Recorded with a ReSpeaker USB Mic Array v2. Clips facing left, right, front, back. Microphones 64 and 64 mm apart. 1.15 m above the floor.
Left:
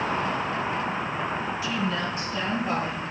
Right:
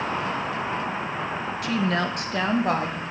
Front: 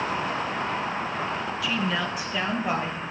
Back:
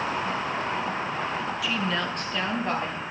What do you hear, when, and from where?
1.6 s a woman speaking: 90° right, 0.9 m; by 3.0 s 80° right, 2.5 m